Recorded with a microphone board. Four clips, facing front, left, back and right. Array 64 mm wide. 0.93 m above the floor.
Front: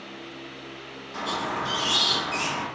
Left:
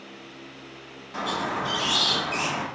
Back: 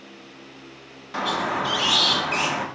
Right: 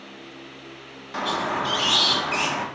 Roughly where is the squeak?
Behind right.